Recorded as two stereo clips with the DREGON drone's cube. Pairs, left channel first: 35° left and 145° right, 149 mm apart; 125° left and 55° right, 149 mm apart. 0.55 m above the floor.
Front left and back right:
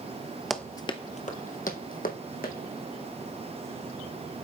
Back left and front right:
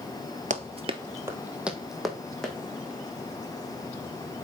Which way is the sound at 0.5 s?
55° right.